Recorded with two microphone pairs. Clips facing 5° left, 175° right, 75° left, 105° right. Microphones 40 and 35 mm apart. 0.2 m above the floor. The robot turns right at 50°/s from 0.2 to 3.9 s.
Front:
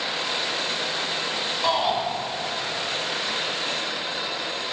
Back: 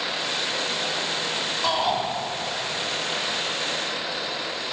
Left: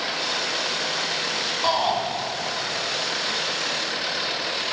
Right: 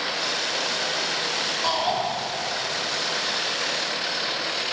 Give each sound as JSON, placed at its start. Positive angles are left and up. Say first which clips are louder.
{"t": 1.6, "sound": "a shout", "louder": "front 1 dB, left 3 dB", "azimuth_deg": 65, "distance_m": 1.5}